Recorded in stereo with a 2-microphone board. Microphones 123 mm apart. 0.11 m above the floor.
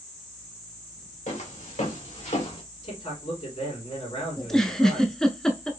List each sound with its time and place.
1.3 s footsteps: 85° left, 1.6 m; by 2.6 s 60° left (ahead or behind), 1.7 m
2.8 s a man speaking: 60° left (ahead or behind), 3 m
4.4 s a giggle: 5° left (ahead or behind), 0.6 m